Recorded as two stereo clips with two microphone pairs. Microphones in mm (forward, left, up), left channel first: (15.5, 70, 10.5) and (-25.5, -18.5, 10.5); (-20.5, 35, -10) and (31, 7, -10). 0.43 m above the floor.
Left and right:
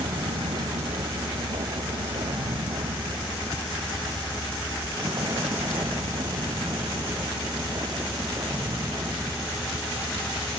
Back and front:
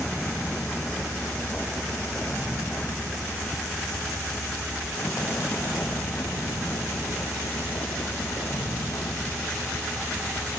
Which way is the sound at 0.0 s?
125° right.